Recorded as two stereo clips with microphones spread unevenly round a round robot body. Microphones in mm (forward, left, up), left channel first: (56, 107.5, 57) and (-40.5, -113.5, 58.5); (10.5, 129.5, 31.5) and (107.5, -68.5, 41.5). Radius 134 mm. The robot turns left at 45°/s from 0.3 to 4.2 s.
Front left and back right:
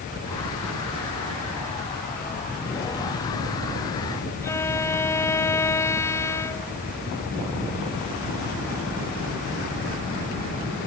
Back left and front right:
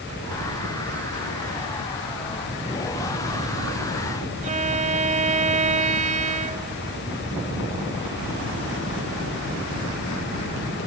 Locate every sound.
4.4 s a violin: 10° right